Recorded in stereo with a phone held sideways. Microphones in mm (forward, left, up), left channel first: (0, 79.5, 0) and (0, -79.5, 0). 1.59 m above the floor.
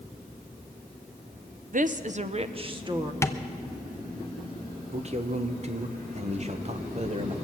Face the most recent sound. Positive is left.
turn(degrees=-45)  # may be behind; listen again after turning